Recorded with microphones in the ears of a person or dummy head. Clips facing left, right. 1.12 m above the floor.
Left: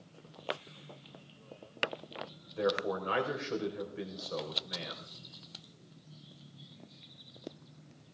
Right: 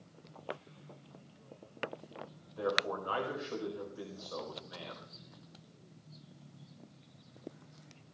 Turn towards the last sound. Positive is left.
turn(degrees=35)  # may be behind; listen again after turning